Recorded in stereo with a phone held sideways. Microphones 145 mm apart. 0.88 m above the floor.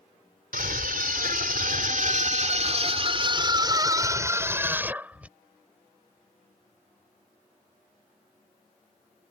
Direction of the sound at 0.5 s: 75° right (ahead or behind).